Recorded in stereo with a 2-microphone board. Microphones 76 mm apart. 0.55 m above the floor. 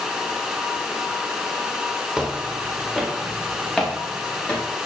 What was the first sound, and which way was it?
Footsteps, 5° right (ahead or behind).